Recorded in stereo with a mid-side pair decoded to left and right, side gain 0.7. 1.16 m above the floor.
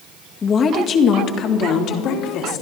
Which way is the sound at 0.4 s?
30° left.